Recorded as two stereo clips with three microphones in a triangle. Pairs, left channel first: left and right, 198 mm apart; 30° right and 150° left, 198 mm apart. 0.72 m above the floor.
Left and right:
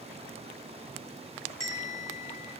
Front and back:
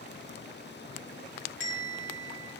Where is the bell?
15° right, 1.2 m.